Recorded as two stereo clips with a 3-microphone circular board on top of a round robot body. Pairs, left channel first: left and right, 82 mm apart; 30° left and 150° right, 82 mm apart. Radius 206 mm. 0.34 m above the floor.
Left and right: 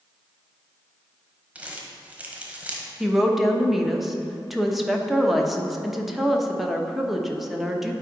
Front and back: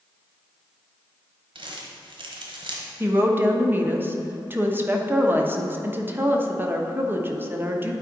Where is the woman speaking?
175° right, 1.2 m.